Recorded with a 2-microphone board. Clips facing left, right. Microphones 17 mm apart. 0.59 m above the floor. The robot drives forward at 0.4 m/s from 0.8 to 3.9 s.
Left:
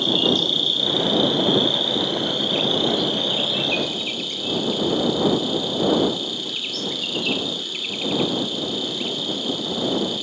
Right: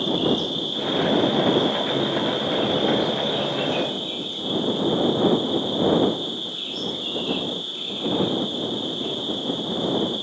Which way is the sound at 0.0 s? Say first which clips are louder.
Left 4 dB; 85° left.